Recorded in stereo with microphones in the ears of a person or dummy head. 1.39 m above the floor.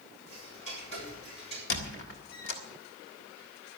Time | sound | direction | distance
0.3 | ticking | 30° left (ahead or behind) | 6 m
1.7 | a squeak | 65° left (ahead or behind) | 1.7 m